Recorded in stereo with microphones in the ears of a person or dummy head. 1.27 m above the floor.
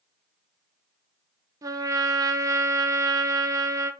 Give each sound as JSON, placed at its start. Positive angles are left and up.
{"t": 1.6, "sound": "a trumpet", "side_deg": -20, "distance_m": 0.7}